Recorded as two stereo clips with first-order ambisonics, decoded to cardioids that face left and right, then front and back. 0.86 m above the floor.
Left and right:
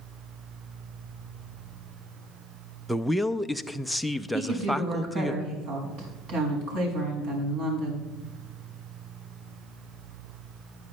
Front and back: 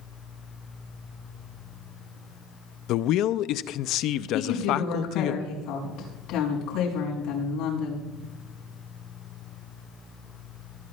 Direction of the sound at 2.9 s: Straight ahead.